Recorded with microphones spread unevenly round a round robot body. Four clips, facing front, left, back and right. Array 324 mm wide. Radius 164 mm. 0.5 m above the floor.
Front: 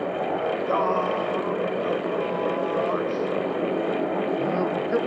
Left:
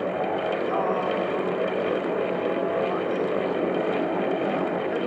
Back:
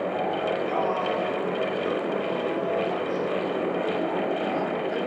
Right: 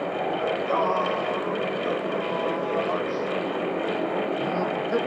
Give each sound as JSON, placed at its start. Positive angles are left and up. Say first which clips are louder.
{"t": 0.3, "sound": "singing", "louder": "even, front 2 dB", "azimuth_deg": -30, "distance_m": 1.1}